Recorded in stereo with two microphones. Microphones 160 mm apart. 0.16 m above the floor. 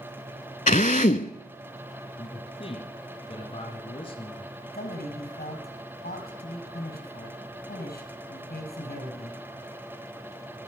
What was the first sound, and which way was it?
A drill, 55° left (ahead or behind).